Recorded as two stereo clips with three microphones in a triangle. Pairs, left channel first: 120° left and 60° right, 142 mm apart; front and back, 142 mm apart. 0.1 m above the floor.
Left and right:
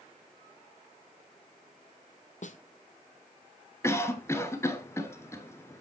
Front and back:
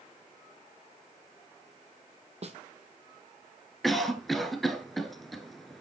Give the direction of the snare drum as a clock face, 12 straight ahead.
7 o'clock.